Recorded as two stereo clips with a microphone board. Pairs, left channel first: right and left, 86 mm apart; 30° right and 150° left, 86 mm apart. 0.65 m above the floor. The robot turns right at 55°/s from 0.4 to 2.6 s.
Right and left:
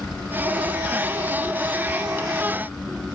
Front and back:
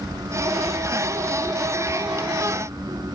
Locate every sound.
Only background noise.